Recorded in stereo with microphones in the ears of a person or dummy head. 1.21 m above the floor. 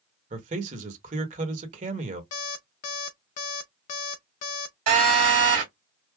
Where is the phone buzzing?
60° right (ahead or behind), 2.0 m.